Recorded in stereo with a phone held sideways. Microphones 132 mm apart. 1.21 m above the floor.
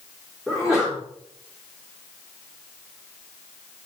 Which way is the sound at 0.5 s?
5° right (ahead or behind).